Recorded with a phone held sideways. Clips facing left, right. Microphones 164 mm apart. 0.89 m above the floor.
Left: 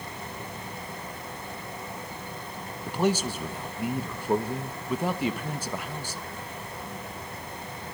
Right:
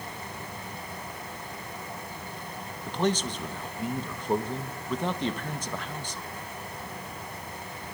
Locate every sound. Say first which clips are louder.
0.0 s a fan: left 1 dB; 25° left (ahead or behind), 10 m
2.9 s a man speaking: left 2 dB; 10° left (ahead or behind), 1.0 m